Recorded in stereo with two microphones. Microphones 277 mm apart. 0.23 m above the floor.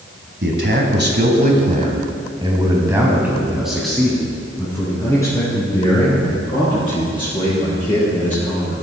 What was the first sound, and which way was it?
A man speaking, 40° right (ahead or behind).